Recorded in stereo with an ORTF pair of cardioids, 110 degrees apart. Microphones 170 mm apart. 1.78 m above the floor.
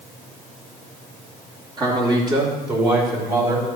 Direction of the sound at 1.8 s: 25° right.